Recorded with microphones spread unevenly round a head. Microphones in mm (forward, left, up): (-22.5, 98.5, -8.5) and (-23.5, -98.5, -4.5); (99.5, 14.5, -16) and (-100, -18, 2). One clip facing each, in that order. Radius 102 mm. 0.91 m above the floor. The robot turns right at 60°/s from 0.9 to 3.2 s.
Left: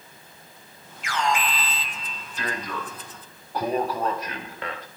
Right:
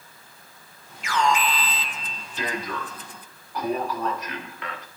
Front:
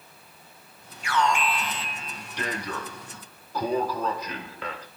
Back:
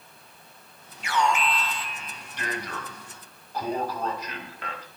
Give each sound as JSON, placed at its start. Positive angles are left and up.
{"t": 1.0, "sound": "an alarm", "azimuth_deg": -105, "distance_m": 3.0}